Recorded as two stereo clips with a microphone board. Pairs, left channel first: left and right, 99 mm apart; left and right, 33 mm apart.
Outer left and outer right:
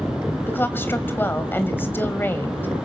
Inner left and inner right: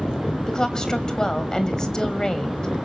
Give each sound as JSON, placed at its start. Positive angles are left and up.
{"t": 0.5, "sound": "a woman speaking", "side_deg": 20, "distance_m": 2.0}